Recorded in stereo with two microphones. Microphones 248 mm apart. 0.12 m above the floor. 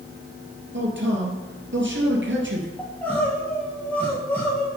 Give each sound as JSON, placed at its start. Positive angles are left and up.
{"t": 0.7, "sound": "a man speaking", "side_deg": -50, "distance_m": 2.5}
{"t": 2.8, "sound": "crying", "side_deg": 5, "distance_m": 2.0}